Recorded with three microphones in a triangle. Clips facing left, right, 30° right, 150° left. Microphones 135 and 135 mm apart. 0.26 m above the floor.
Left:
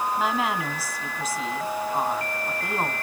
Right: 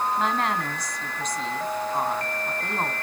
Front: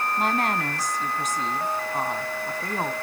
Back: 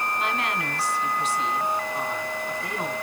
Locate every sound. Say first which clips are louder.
0.2 s a woman speaking: even, front 3 dB; 5° left, 1.8 m